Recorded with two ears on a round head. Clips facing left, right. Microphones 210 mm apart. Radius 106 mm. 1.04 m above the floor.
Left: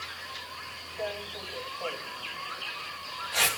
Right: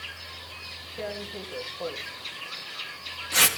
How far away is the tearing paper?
About 2.5 m.